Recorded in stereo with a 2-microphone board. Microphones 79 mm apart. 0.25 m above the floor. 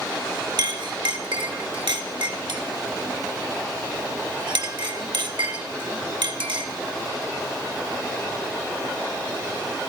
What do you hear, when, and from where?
0.6 s a clink: 70° right (ahead or behind), 2 m